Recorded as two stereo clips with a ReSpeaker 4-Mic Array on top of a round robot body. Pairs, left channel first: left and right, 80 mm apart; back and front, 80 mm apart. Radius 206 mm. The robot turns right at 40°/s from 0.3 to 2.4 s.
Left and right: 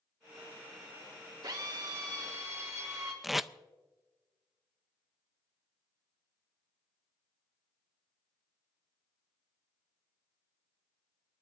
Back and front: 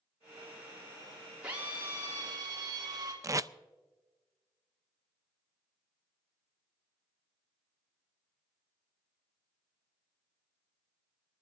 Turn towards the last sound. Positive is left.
turn(degrees=-5)